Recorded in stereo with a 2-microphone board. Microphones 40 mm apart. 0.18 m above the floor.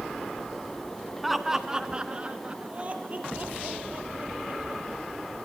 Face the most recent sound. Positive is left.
turn(degrees=-45)  # may be behind; listen again after turning